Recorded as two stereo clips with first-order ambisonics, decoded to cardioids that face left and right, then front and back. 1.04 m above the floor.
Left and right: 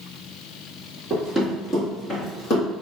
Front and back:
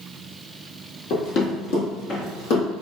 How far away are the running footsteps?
About 1.9 m.